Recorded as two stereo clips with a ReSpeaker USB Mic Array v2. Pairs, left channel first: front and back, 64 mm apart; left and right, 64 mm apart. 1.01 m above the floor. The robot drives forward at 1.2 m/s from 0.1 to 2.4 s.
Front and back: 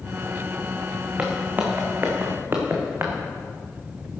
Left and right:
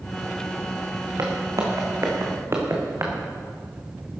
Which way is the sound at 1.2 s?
115° right.